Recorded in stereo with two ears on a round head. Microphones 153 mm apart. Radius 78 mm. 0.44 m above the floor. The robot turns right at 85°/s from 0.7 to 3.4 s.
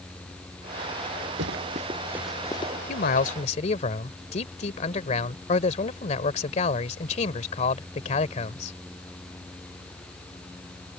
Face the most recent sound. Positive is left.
turn(degrees=125)